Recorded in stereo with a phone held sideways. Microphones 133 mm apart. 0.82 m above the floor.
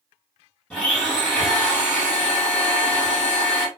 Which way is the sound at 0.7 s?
10° left (ahead or behind).